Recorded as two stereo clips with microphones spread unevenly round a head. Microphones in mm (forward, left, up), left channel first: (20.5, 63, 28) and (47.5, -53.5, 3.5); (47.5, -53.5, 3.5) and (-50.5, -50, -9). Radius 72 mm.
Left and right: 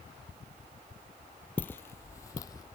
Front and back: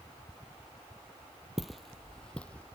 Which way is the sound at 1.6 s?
80° left.